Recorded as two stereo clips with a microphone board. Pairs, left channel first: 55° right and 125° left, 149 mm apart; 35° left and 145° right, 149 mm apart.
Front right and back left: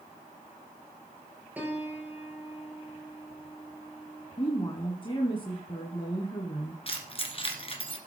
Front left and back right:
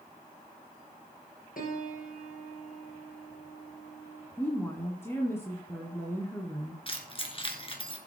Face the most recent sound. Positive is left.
turn(degrees=-10)